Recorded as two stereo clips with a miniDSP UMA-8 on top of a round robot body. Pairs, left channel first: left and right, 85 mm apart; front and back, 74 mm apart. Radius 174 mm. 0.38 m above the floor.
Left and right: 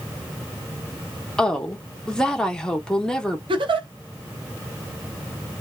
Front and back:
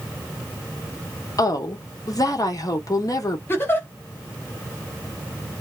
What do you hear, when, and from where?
1.4 s a woman speaking: 10° left, 1.1 m
3.5 s a giggle: 60° right, 0.7 m